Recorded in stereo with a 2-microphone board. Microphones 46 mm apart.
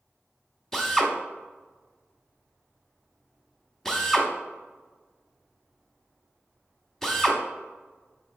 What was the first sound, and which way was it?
A drill, 10° left (ahead or behind).